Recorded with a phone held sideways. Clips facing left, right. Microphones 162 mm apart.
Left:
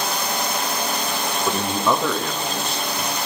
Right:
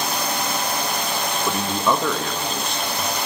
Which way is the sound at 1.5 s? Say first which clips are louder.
Left 1 dB; centre (ahead or behind).